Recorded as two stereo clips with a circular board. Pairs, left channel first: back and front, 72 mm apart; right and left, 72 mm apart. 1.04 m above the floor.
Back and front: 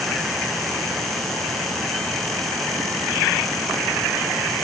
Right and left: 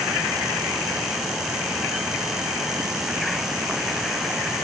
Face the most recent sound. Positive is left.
No sound to turn to.